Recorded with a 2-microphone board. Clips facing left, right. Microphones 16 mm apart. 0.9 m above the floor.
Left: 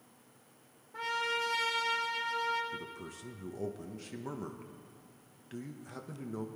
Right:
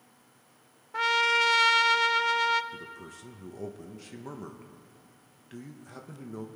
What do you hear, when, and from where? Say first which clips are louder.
0.9 s a trumpet: right 10 dB; 55° right (ahead or behind), 0.6 m
2.7 s a man speaking: even; 10° right (ahead or behind), 0.9 m